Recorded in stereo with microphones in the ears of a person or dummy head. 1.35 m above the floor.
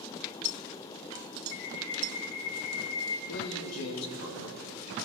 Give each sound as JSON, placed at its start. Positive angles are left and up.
{"t": 1.5, "sound": "a bird", "side_deg": 70, "distance_m": 1.8}
{"t": 3.3, "sound": "a man speaking", "side_deg": 80, "distance_m": 2.5}